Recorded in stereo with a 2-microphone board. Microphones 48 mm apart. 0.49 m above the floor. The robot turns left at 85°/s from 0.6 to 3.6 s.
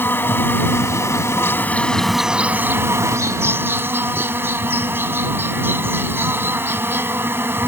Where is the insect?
130° left; by 7.7 s 125° right.